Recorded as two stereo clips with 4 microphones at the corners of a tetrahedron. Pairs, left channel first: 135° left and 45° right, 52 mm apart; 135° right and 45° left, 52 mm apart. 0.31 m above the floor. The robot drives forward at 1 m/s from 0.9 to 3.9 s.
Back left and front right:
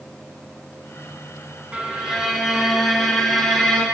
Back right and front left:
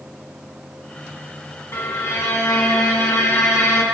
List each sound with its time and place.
1.7 s a violin: 115° right, 2.5 m; by 3.8 s 145° right, 4 m